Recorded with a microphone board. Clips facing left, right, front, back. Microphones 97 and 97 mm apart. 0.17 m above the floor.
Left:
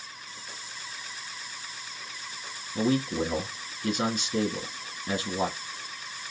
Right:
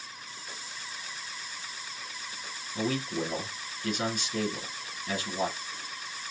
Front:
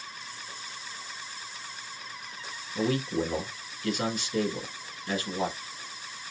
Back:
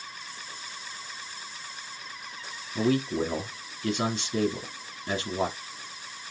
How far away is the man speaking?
About 2 m.